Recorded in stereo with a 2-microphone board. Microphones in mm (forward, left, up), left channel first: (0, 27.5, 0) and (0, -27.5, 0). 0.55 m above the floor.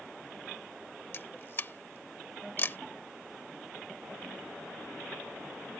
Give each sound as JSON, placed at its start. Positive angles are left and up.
{"t": 1.1, "sound": "a camera shutter", "side_deg": 40}